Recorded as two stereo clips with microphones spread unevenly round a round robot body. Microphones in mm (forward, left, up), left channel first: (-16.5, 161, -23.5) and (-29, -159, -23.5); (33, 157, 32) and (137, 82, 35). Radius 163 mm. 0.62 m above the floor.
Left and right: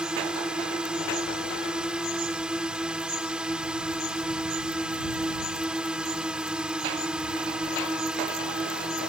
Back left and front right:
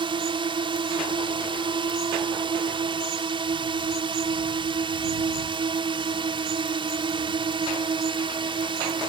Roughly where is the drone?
Ahead.